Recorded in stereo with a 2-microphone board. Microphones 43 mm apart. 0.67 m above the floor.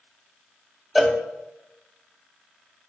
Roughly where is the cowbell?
Centre.